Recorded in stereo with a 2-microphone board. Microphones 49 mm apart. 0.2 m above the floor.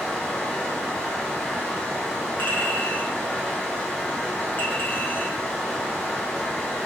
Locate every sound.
0.0 s running water: 20° left (ahead or behind), 1.5 m
2.4 s a clink: 45° left (ahead or behind), 1.7 m